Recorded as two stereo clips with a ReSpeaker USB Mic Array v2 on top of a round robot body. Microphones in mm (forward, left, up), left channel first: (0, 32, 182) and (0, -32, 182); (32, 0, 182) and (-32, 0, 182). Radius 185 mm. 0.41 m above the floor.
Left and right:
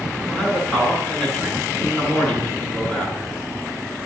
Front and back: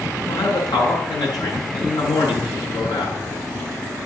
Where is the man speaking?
10° left, 8 m.